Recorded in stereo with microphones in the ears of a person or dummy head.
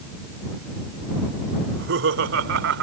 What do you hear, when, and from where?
1.6 s laughter: 70° right (ahead or behind)